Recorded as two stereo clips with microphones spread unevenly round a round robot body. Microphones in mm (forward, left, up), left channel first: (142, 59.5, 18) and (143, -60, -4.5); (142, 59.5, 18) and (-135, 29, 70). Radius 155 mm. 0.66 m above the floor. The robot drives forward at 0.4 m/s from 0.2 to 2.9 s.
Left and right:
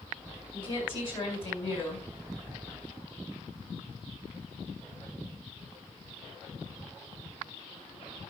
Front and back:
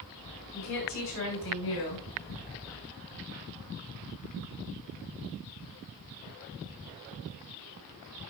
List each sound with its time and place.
0.5 s a woman speaking: 45° left, 7.5 m; by 2.1 s 50° left, 7.5 m